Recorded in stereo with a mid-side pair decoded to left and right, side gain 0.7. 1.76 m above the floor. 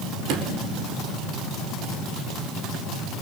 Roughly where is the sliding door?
Ahead right.